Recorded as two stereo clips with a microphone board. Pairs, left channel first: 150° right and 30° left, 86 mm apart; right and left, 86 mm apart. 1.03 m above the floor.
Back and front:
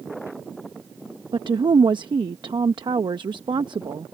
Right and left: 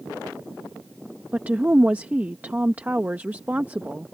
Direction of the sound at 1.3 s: 20° left.